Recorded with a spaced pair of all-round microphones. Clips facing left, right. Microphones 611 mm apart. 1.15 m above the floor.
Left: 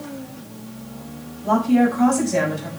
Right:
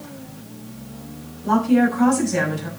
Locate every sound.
1.4 s a woman speaking: 5° left (ahead or behind), 5.5 m